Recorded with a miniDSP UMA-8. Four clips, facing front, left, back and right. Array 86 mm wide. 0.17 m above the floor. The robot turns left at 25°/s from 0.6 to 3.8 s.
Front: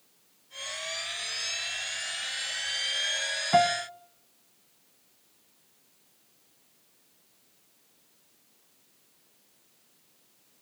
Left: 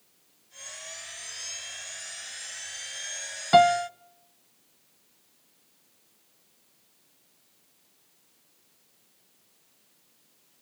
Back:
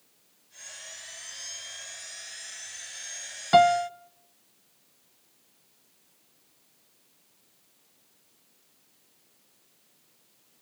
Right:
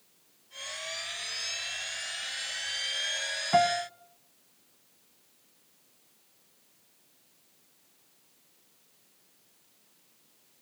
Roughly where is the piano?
Behind left.